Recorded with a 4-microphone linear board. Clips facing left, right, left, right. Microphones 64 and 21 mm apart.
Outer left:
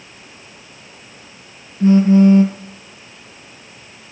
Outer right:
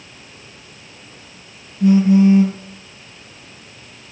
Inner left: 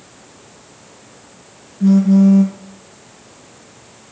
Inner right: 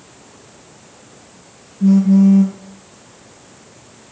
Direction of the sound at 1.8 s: 40° left (ahead or behind).